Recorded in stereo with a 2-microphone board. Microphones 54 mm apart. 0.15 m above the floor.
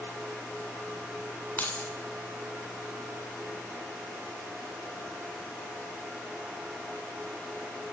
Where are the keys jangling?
30° left (ahead or behind), 0.8 m.